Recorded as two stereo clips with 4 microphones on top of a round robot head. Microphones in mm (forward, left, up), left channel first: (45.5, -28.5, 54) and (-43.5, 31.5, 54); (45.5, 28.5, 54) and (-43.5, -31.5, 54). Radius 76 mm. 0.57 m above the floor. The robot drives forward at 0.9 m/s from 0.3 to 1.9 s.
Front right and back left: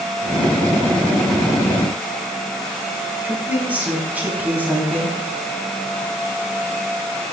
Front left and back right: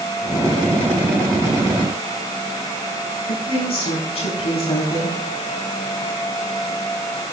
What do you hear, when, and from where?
3.2 s a woman speaking: 70° left, 5.5 m